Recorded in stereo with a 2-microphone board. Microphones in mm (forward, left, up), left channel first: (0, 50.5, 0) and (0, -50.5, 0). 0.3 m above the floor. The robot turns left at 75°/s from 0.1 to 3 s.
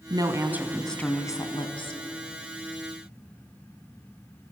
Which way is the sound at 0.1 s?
125° right.